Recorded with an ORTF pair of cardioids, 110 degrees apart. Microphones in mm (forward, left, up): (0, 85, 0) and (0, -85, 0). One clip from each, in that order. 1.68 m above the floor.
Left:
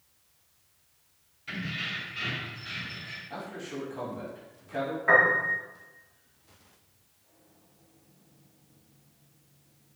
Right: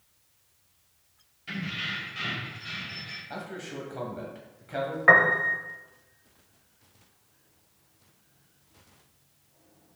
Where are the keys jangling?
15° right, 1.9 m; by 3.2 s 50° right, 2 m.